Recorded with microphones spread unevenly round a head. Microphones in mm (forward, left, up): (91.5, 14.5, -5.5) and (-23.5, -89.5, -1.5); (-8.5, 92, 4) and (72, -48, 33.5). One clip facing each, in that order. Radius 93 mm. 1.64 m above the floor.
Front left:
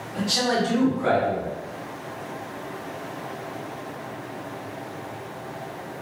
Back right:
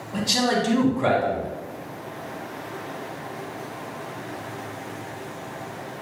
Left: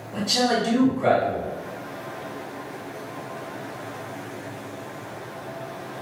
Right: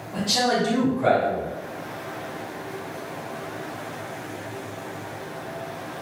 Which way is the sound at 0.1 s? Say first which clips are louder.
Back right 1 dB, even; 150° right.